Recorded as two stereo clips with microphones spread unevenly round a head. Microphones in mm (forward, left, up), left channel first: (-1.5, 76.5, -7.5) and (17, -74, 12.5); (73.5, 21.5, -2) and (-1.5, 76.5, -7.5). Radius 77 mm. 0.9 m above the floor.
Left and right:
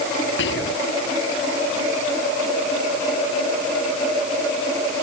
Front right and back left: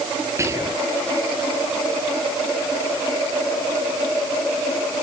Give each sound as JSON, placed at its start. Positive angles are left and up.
{"t": 0.4, "sound": "whispering", "azimuth_deg": 85}